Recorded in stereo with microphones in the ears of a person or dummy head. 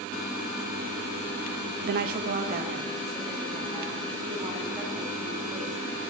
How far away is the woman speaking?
About 0.6 m.